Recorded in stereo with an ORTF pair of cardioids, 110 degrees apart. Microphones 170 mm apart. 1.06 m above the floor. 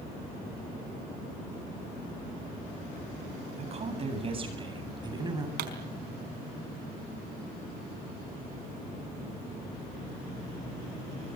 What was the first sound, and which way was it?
A woman speaking, 40° right.